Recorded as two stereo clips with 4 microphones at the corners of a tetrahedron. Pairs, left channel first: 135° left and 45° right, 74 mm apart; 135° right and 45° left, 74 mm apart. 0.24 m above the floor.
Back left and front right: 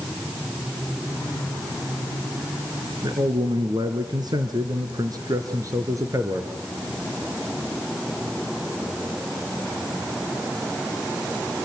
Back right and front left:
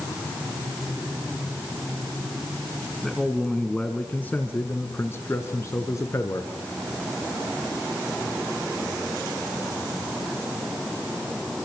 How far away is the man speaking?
About 2.5 m.